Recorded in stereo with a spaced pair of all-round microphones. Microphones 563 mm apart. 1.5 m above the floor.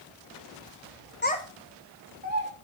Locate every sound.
1.2 s a child speaking: 20° left (ahead or behind), 0.9 m; by 2.5 s 20° right (ahead or behind), 2.5 m